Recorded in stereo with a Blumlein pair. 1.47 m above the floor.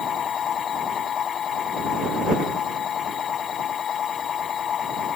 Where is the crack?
No crack in this recording.